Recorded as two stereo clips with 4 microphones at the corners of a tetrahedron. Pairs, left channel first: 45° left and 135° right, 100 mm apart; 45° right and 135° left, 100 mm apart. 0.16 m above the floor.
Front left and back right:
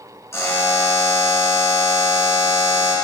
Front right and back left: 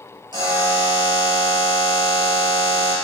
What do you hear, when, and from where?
0.3 s a buzzer: 105° left, 1.9 m